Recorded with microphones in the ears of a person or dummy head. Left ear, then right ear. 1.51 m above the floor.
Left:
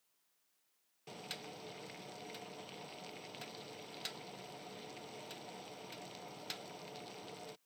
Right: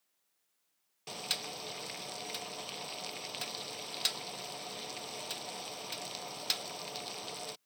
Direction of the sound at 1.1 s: 30° right (ahead or behind).